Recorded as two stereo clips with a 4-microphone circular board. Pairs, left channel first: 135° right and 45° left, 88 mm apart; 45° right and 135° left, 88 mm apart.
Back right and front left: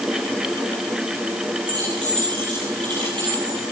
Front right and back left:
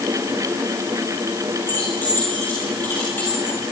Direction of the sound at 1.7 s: 25° left.